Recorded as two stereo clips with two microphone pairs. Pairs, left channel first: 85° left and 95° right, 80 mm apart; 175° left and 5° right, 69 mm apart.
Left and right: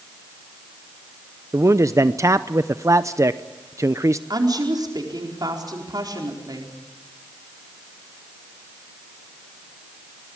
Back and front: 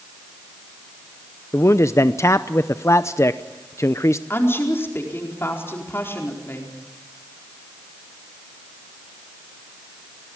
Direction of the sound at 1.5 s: 140° right.